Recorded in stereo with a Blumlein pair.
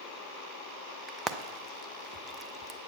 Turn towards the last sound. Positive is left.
turn(degrees=-15)